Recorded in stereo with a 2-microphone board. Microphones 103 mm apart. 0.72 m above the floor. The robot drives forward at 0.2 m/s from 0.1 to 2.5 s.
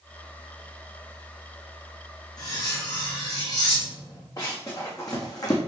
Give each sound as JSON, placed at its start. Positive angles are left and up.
{"t": 2.4, "sound": "cutlery clinking", "side_deg": 35, "distance_m": 3.0}
{"t": 4.4, "sound": "running footsteps", "side_deg": 35, "distance_m": 3.5}